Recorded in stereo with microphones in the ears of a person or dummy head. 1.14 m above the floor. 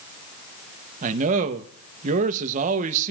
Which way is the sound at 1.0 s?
45° right (ahead or behind).